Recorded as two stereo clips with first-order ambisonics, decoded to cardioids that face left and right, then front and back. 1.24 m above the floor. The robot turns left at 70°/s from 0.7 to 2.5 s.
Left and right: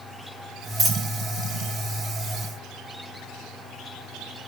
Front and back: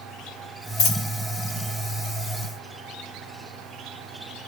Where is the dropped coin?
25° right, 1.1 m; by 1.0 s 45° right, 1.1 m.